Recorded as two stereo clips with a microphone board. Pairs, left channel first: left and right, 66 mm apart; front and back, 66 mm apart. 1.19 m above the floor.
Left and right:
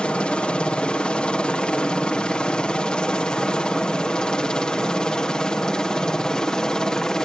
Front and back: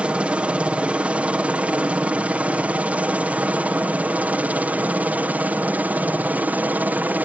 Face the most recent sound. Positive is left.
turn(degrees=155)